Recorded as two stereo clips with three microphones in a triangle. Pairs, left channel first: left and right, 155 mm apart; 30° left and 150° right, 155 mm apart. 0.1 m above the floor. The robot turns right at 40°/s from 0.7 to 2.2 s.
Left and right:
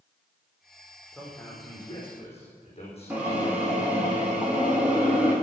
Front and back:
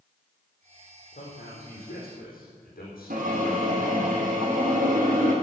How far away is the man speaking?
About 5 m.